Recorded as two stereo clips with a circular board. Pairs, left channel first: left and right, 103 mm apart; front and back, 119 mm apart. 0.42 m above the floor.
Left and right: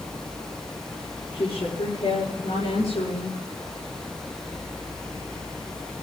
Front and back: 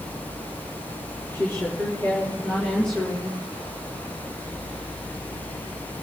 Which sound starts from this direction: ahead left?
A woman speaking, at 1.3 s.